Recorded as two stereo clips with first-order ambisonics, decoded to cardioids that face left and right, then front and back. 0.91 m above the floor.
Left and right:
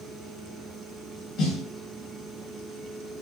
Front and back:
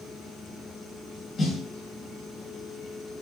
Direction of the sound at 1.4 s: 70° left.